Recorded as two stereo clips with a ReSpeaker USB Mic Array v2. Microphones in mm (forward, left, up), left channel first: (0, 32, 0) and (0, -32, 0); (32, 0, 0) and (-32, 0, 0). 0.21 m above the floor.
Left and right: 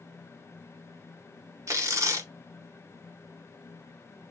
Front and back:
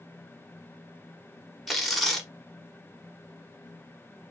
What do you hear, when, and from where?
1.7 s tearing paper: 90° right, 1.0 m